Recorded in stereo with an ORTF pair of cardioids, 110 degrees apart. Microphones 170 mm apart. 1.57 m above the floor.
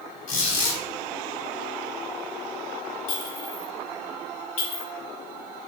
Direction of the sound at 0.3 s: 55° left.